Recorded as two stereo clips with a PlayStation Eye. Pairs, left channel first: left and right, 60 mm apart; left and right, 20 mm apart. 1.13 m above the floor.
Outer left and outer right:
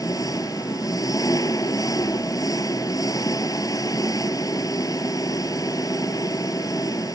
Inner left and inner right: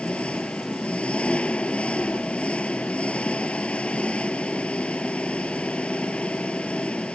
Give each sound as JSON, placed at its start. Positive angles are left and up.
{"t": 0.0, "sound": "an engine running", "side_deg": 85}